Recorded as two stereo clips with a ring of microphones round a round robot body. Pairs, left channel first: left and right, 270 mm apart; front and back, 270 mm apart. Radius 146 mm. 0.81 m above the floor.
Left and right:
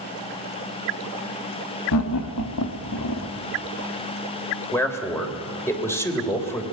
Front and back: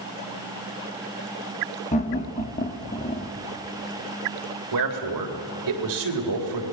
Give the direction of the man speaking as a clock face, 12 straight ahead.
6 o'clock.